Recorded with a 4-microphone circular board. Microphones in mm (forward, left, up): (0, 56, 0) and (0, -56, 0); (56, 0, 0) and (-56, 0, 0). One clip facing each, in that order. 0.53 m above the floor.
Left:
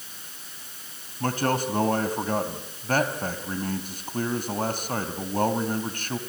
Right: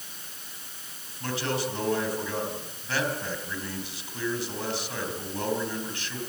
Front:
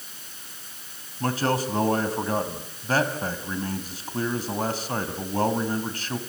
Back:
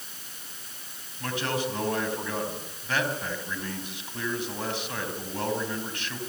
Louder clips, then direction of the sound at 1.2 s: Left 5 dB, front 5 dB; 50° left.